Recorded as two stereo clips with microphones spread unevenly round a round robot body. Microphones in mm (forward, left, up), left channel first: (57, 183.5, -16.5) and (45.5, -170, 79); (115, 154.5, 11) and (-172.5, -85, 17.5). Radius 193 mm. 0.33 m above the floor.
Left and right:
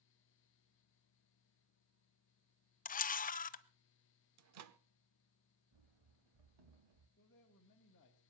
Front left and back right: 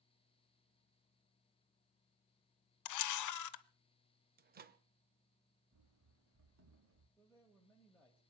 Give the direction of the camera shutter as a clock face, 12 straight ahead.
10 o'clock.